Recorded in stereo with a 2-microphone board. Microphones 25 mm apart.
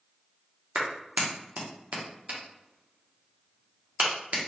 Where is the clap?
70° right (ahead or behind), 0.7 m.